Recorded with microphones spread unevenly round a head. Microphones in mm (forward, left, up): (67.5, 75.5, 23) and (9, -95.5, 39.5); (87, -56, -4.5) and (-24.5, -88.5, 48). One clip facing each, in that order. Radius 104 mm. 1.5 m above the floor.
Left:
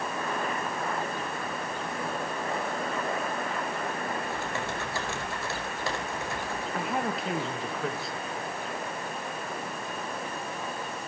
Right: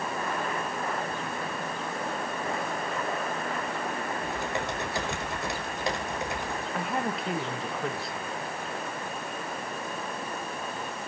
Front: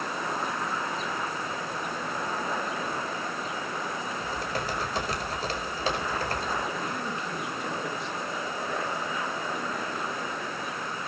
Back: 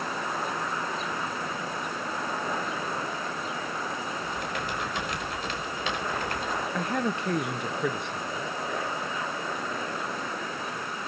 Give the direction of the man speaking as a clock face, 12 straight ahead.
7 o'clock.